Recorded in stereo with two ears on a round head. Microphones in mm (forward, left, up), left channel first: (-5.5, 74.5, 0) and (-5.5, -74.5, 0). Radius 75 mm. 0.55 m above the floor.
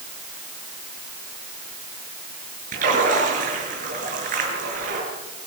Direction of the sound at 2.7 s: 55° right (ahead or behind).